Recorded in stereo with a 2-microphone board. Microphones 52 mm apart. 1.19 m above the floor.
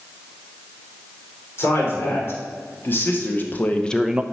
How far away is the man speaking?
About 3.5 m.